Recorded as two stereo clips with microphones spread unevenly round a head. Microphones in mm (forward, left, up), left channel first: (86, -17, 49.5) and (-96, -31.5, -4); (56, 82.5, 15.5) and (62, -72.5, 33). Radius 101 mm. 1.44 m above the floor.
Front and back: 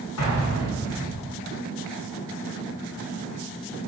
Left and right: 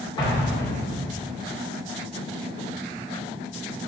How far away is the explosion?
About 2.5 m.